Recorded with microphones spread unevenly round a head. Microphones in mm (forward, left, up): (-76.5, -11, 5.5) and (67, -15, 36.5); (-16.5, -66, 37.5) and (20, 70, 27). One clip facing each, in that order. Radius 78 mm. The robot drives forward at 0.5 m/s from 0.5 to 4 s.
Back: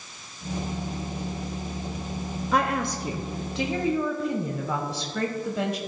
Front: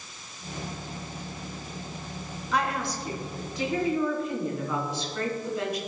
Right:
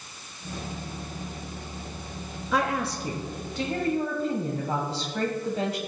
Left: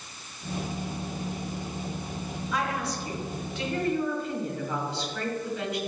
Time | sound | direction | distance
2.5 | a woman speaking | 130° right | 0.7 m